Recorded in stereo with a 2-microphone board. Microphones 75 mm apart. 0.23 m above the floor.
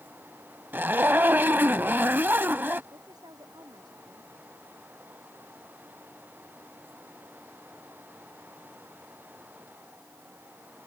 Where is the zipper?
30° right (ahead or behind).